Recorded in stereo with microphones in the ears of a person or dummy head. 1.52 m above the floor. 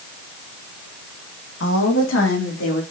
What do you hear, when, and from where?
1.6 s a woman speaking: 80° left, 2.5 m; by 2.8 s 85° left, 4 m